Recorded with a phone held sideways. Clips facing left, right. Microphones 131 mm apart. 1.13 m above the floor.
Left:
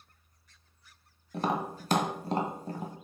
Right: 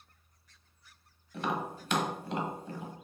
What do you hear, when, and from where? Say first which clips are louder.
1.3 s tapping: left 3 dB; 40° left (ahead or behind), 1.2 m